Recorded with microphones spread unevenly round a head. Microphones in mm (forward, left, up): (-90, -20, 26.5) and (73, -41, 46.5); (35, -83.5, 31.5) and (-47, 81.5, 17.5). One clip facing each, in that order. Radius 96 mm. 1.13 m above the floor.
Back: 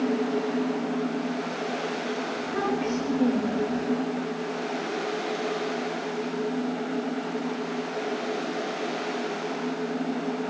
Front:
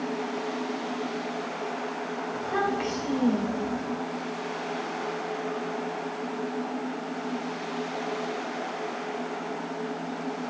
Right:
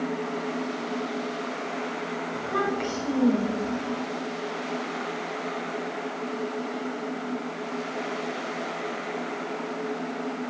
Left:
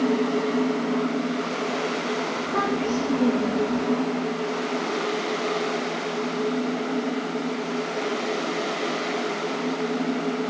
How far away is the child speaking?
About 3.5 m.